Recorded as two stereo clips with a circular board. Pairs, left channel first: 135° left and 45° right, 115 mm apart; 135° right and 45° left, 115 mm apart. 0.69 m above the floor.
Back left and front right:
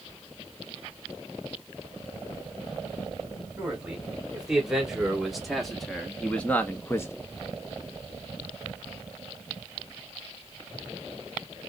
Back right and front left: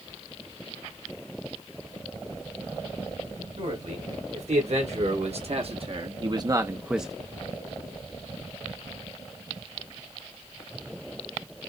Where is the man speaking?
35° left, 2.0 m; by 7.1 s 135° left, 0.6 m.